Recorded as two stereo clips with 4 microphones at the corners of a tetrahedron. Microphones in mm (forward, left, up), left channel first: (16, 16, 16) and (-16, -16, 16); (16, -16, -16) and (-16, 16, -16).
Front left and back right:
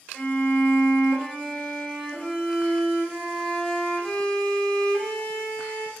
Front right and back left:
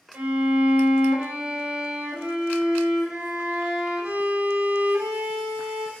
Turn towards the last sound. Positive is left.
turn(degrees=125)